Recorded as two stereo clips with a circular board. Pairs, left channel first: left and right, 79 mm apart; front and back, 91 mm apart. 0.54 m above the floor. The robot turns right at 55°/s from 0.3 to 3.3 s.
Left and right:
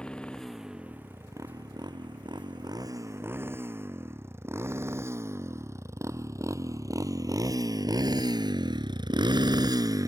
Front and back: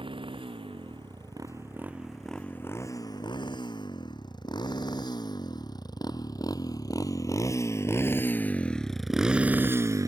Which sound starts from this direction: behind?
A motorcycle, at 0.0 s.